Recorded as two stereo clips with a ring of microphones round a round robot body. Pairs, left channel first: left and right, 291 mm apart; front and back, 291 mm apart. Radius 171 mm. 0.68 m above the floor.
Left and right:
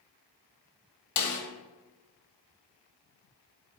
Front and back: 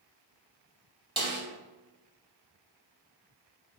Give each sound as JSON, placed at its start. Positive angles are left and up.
{"t": 1.2, "sound": "a snare drum", "azimuth_deg": 105, "distance_m": 0.9}